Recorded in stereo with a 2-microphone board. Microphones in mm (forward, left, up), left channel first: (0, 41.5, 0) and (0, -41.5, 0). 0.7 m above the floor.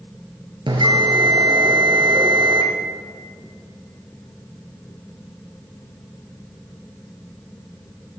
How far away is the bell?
About 2.5 m.